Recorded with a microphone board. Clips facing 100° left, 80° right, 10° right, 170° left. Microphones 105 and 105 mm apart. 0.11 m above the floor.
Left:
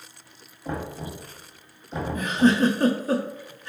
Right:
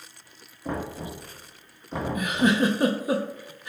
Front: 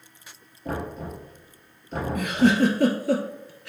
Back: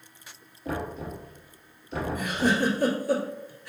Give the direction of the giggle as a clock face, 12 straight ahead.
12 o'clock.